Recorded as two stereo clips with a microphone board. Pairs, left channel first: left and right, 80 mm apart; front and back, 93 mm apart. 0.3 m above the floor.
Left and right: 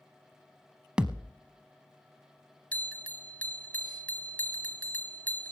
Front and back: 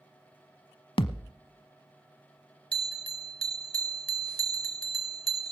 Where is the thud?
10° right, 0.7 m.